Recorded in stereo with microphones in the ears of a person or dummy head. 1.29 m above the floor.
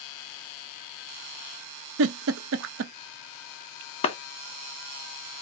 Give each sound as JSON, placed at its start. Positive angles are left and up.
{"t": 2.0, "sound": "a giggle", "side_deg": -65, "distance_m": 0.5}
{"t": 4.0, "sound": "a clap", "side_deg": 35, "distance_m": 0.7}